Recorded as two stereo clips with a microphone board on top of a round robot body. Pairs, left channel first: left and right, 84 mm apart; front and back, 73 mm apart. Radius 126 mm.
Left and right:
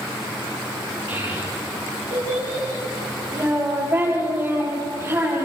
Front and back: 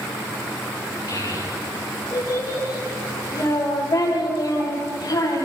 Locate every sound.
1.1 s a child speaking: 40° right, 9 m; by 5.5 s 35° right, 13.5 m